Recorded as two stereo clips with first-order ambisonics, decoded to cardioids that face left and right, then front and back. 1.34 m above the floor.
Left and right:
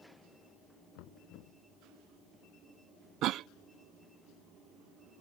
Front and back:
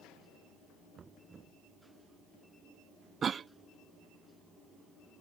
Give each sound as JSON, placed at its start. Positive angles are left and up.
{"t": 0.9, "sound": "knocking", "azimuth_deg": 110}
{"t": 3.2, "sound": "a cough", "azimuth_deg": -115}